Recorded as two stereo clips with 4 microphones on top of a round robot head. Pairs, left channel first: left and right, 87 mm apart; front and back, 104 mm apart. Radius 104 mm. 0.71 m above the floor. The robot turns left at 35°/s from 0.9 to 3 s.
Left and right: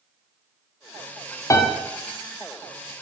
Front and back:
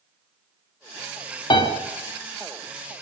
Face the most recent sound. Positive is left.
turn(degrees=-10)